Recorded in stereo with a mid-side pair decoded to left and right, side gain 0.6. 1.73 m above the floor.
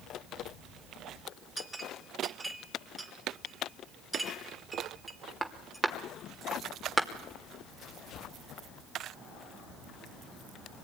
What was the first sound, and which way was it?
A clink, 10° right.